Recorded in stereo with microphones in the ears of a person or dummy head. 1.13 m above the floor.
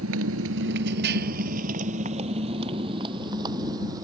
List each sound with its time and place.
0.0 s a motorcycle: 85° right; by 4.0 s 20° right (ahead or behind)